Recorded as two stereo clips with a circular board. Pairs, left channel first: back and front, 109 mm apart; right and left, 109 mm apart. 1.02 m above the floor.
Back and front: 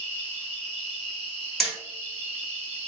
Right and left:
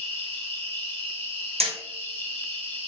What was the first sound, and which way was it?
An insect, 100° left.